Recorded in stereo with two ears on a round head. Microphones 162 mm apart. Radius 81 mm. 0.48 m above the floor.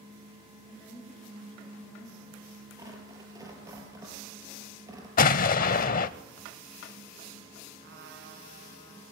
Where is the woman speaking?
5° left (ahead or behind), 6.5 m; by 2.6 s 10° left (ahead or behind), 5 m.